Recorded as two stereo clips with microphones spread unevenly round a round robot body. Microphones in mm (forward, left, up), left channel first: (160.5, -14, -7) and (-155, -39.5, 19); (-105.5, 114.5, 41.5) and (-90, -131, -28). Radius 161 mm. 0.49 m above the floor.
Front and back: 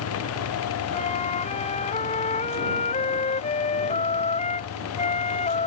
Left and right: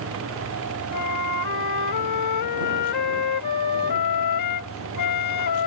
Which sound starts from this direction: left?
A flute, at 0.9 s.